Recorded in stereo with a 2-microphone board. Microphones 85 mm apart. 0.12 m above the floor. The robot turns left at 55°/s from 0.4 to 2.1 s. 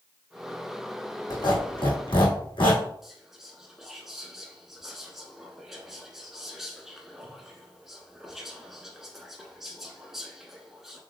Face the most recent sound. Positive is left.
turn(degrees=-5)  # may be behind; listen again after turning